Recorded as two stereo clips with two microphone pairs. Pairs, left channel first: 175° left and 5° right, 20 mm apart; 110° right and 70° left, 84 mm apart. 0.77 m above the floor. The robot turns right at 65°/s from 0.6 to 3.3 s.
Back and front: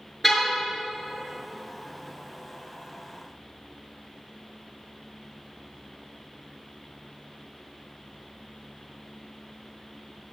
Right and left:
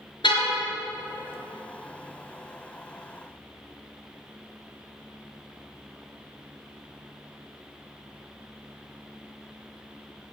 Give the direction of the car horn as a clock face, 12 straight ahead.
3 o'clock.